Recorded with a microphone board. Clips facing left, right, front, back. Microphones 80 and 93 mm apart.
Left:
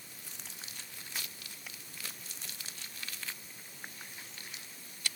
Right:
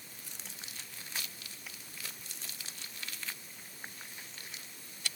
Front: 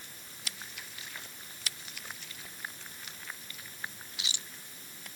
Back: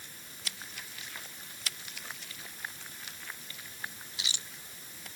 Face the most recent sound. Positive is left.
No sound to turn to.